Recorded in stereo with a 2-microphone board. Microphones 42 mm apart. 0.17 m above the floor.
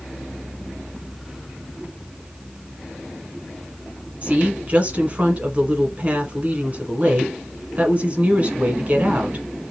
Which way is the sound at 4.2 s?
35° right (ahead or behind).